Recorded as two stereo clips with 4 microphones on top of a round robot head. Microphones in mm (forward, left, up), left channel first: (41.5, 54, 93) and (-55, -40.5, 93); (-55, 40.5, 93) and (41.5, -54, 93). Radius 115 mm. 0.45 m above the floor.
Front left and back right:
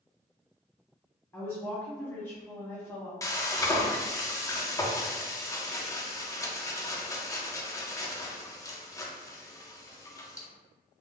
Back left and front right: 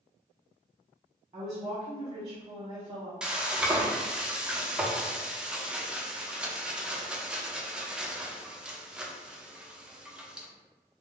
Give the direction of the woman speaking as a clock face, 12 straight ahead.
12 o'clock.